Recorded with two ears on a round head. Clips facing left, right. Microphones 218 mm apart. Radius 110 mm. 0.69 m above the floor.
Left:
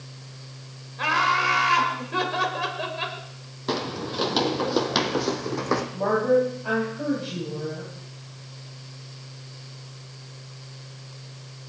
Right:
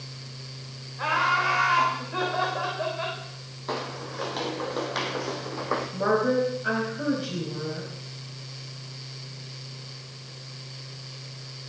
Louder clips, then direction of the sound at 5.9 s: Left 2 dB; 20° right (ahead or behind).